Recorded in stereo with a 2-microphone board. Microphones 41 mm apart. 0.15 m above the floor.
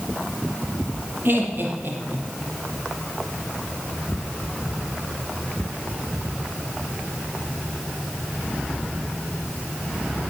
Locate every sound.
1.2 s laughter: 55° right (ahead or behind), 3.5 m; by 2.3 s 50° right (ahead or behind), 4 m